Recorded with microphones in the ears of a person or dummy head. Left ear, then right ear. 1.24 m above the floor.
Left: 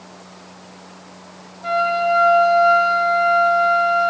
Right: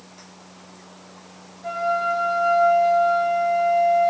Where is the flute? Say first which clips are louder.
Left 5 dB; 30° left (ahead or behind), 2 m.